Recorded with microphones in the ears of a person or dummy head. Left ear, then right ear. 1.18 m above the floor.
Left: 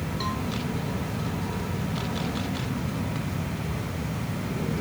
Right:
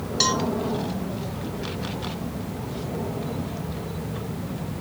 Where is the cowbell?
70° right (ahead or behind).